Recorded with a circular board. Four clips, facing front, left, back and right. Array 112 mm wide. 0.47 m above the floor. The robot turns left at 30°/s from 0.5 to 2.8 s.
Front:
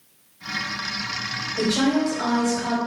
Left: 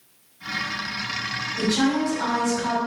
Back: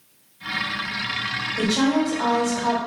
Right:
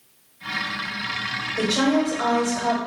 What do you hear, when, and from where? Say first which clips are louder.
1.6 s a woman speaking: right 1 dB, even; 75° right, 1.6 m; by 2.8 s 115° right, 1.6 m